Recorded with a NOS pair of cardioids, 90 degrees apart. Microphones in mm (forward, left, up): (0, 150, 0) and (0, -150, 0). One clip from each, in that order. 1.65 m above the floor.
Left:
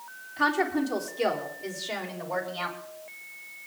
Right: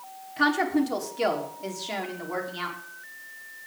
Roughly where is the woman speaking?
Ahead right.